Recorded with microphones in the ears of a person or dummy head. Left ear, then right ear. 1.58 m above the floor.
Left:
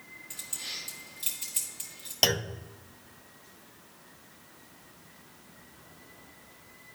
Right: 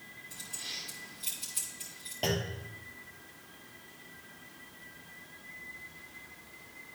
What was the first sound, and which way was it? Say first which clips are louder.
Keys jangling: left 3 dB; 40° left (ahead or behind).